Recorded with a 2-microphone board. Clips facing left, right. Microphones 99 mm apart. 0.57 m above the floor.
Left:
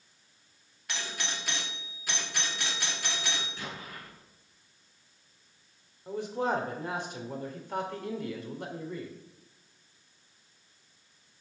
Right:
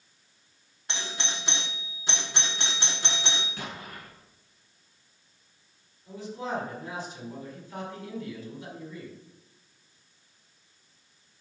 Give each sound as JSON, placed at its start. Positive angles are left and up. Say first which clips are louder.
{"t": 0.9, "sound": "a doorbell", "louder": "right 2 dB", "side_deg": -25, "distance_m": 1.2}
{"t": 3.6, "sound": "an explosion", "louder": "right 2 dB", "side_deg": -65, "distance_m": 2.5}
{"t": 6.1, "sound": "a man speaking", "louder": "left 4 dB", "side_deg": 65, "distance_m": 1.7}